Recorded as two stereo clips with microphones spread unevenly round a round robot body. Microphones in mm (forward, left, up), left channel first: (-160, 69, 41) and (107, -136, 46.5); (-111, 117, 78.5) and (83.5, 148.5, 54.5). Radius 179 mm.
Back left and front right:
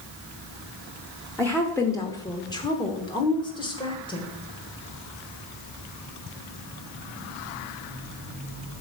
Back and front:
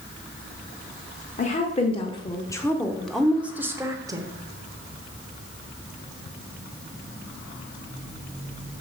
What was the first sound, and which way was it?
A woman speaking, 140° right.